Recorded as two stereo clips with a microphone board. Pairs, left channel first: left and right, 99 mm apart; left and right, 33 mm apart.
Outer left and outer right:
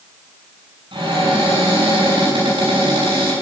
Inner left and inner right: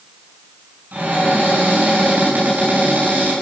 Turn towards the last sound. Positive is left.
turn(degrees=-60)  # may be behind; listen again after turning